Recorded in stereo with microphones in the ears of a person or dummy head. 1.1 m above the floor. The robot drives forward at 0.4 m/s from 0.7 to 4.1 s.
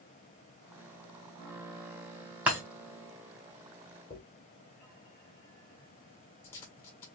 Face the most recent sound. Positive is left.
turn(degrees=10)  # may be behind; listen again after turning